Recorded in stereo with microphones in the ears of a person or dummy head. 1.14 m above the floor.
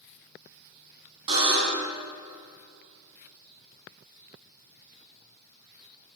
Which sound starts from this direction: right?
A buzzer, at 1.3 s.